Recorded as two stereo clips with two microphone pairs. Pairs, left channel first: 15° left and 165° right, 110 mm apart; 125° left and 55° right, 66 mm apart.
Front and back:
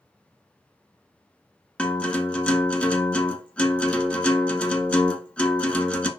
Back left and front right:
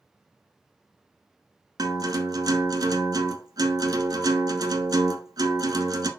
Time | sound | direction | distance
1.8 | a guitar | 65° right | 1.1 m